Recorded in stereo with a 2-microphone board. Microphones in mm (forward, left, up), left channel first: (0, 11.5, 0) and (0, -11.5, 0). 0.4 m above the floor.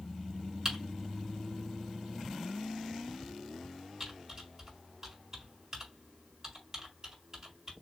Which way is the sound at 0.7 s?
20° right (ahead or behind).